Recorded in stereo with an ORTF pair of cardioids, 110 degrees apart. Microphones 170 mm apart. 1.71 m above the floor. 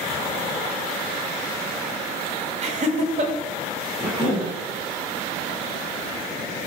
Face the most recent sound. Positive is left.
turn(degrees=-15)